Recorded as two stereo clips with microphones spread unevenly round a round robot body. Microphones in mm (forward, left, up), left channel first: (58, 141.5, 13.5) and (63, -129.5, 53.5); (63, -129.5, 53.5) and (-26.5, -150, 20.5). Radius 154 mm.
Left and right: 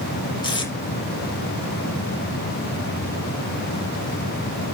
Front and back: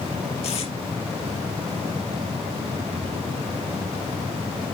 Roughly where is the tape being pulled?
Ahead.